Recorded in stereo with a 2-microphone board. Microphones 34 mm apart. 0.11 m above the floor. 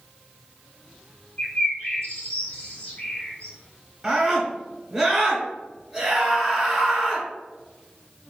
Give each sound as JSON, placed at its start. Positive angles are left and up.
{"t": 1.4, "sound": "a bird", "side_deg": 40, "distance_m": 1.4}
{"t": 4.0, "sound": "a scream", "side_deg": 0, "distance_m": 1.5}